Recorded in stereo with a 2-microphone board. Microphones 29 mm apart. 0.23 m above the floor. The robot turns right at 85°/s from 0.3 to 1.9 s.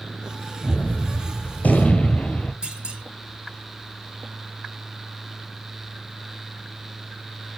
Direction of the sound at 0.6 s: 25° left.